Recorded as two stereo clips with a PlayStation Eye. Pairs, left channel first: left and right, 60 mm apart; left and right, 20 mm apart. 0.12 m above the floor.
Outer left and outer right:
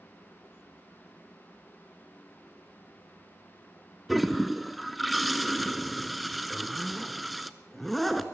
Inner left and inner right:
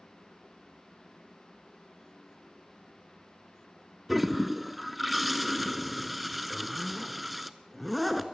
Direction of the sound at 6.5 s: Centre (ahead or behind).